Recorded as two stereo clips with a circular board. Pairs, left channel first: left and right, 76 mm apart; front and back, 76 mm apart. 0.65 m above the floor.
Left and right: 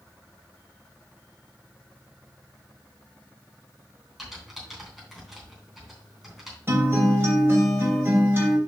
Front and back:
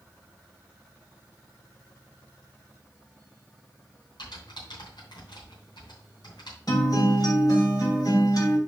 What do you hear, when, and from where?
4.2 s typing on a keyboard: 5° right, 3.5 m
6.7 s a guitar: 35° right, 3 m